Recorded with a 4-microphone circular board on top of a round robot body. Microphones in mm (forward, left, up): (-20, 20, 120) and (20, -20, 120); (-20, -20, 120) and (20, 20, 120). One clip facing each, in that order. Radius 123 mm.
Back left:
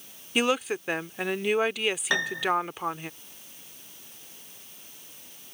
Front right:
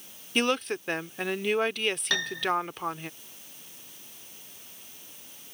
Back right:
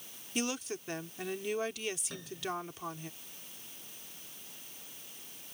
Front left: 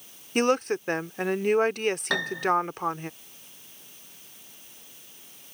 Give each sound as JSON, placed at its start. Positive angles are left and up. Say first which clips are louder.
{"t": 0.3, "sound": "a woman speaking", "louder": "back left 1 dB, front left 13 dB", "azimuth_deg": 50}
{"t": 2.1, "sound": "a piano", "louder": "back left 2 dB, front left 14 dB", "azimuth_deg": 60}